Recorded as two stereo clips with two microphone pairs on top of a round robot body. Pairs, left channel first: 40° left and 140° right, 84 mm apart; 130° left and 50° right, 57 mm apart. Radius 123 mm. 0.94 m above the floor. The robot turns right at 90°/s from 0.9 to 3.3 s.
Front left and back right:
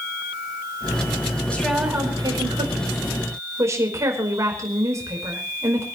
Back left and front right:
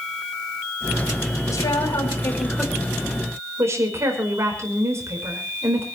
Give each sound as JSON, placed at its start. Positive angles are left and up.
{"t": 1.5, "sound": "a woman speaking", "azimuth_deg": 110, "distance_m": 5.0}